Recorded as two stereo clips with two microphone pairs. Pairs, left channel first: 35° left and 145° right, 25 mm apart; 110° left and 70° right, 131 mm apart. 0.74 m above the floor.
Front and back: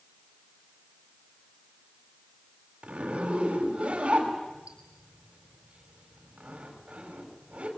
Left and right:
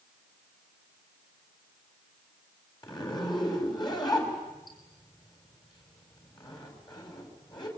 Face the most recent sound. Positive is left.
turn(degrees=165)